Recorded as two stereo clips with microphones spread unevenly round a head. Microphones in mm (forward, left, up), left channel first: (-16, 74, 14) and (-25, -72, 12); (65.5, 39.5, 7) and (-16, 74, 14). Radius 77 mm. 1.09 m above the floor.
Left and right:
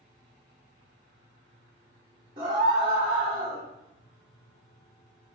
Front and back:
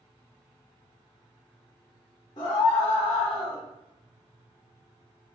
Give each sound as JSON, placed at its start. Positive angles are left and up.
{"t": 2.4, "sound": "a scream", "azimuth_deg": -45, "distance_m": 0.9}